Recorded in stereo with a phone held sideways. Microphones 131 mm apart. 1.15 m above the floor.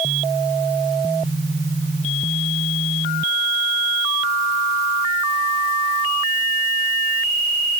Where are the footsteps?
I don't hear footsteps.